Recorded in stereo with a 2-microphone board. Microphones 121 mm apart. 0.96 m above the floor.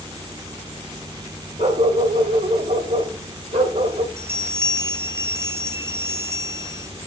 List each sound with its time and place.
1.6 s a dog barking: 75° right (ahead or behind), 1.7 m
4.2 s a bell: 25° right (ahead or behind), 0.5 m